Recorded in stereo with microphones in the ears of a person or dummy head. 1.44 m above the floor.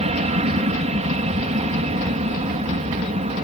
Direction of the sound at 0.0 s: 35° right (ahead or behind).